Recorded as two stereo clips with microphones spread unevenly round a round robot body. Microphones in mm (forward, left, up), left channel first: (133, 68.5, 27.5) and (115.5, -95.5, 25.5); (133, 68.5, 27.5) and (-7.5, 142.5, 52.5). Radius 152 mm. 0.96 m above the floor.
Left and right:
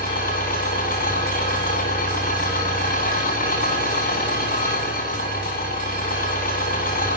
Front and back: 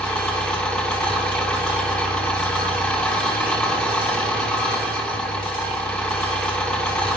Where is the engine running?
55° left, 8 m.